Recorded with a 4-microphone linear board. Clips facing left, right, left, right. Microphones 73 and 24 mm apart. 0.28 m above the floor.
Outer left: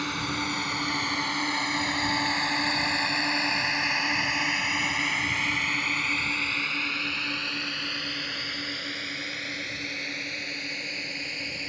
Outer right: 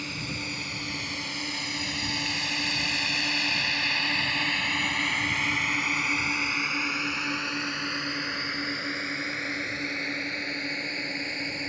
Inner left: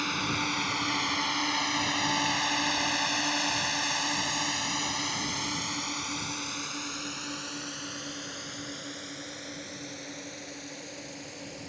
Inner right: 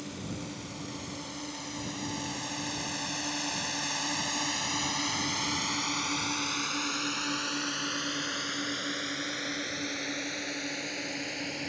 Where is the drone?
60° left (ahead or behind); by 11.7 s 35° right (ahead or behind).